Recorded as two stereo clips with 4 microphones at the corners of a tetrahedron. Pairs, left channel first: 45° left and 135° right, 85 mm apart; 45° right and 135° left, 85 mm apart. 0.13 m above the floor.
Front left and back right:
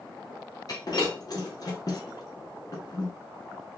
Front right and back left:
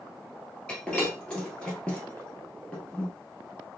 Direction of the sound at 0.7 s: 30° left.